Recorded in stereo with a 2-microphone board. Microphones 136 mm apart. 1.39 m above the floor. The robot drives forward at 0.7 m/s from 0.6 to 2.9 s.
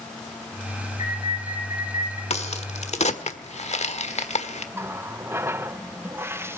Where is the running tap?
20° right (ahead or behind), 0.6 m.